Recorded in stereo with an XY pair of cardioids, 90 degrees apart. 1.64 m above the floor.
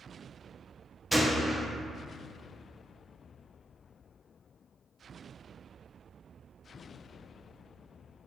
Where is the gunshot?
5° right, 0.7 m.